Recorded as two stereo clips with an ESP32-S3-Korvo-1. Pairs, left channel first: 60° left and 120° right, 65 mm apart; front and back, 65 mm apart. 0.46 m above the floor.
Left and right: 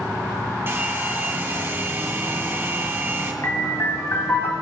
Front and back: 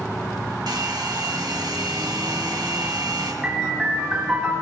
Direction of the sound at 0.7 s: 175° right.